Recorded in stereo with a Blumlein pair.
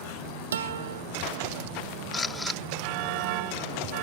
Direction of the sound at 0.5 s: 65° right.